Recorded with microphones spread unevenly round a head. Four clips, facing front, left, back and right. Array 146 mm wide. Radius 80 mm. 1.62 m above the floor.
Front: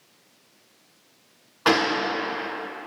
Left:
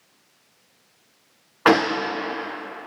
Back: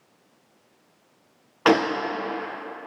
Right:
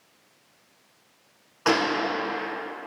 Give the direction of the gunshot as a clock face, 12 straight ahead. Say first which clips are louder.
Left 5 dB, back 2 dB; 7 o'clock.